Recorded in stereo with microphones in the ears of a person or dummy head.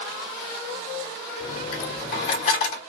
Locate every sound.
1.4 s a dropped coin: 45° left (ahead or behind), 0.9 m